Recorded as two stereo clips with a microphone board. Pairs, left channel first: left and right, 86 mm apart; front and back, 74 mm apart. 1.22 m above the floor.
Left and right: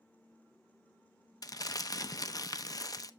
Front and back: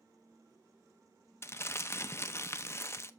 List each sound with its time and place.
1.4 s crumpling: 50° left, 0.6 m